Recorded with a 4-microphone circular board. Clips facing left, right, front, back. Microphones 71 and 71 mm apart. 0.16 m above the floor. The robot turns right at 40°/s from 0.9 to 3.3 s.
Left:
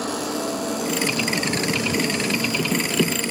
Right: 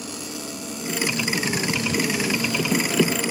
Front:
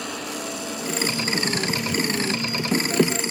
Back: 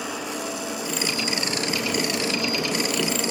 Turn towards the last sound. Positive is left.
turn(degrees=-165)